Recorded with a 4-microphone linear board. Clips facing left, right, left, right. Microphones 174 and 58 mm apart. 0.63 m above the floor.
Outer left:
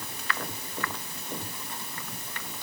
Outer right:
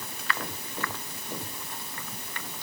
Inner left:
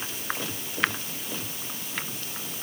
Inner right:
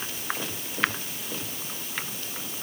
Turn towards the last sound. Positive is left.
No sound to turn to.